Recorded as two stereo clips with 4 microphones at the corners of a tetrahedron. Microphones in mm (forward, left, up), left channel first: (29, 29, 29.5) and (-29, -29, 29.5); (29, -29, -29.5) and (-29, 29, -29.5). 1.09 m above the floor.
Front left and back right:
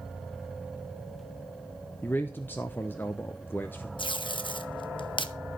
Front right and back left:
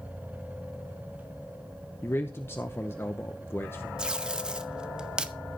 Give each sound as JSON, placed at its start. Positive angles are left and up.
{"t": 2.0, "sound": "a man speaking", "azimuth_deg": -5, "distance_m": 0.7}
{"t": 4.0, "sound": "tape being pulled", "azimuth_deg": 55, "distance_m": 0.7}